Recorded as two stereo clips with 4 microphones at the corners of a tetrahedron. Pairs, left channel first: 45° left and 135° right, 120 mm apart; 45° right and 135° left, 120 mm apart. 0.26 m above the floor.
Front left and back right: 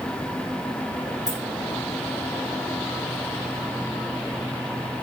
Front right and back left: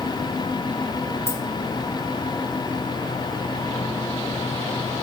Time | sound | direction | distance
1.3 | keys jangling | 75° right | 2 m